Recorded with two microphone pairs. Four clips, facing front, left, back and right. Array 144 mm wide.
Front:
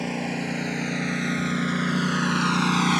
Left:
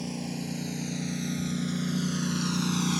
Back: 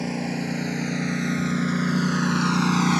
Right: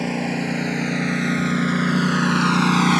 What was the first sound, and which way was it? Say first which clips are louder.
A lawn mower: right 11 dB, back 1 dB; 75° right.